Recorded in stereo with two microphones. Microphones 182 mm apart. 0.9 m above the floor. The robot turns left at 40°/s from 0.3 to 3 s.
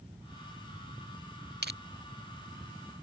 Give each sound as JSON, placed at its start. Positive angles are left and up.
{"t": 1.6, "sound": "crushing", "side_deg": -65}